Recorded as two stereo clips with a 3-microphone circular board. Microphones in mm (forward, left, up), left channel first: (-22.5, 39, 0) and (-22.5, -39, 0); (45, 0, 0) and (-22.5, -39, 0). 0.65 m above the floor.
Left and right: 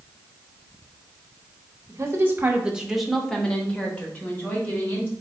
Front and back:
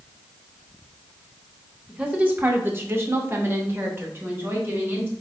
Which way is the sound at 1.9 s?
85° right.